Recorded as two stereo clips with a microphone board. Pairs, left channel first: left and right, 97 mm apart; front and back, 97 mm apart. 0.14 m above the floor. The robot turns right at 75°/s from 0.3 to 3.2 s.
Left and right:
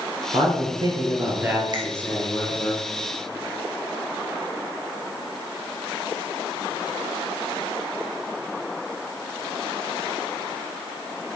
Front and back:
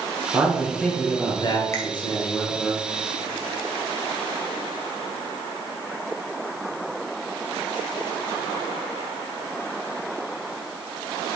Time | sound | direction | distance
0.3 | a man speaking | 110° right | 2.5 m
1.7 | a finger snap | 55° right | 1.8 m